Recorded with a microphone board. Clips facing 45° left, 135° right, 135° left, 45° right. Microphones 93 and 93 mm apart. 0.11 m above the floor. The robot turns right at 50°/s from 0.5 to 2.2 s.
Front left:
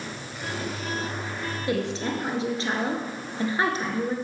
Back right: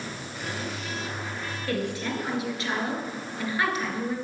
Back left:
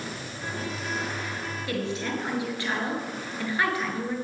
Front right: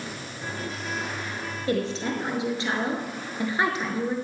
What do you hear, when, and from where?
1.7 s a woman speaking: 15° right, 1.9 m; by 4.2 s 10° left, 1.9 m